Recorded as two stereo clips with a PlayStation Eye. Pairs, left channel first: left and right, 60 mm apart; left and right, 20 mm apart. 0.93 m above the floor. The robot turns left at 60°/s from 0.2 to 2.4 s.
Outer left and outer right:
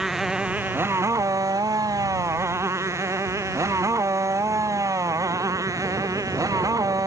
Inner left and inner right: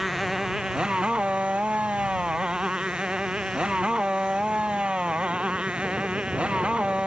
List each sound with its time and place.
0.0 s a motorcycle: 5° right (ahead or behind); by 7.1 s 70° right (ahead or behind)